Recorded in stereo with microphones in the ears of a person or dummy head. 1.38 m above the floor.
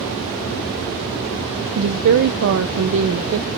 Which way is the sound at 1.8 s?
65° right (ahead or behind).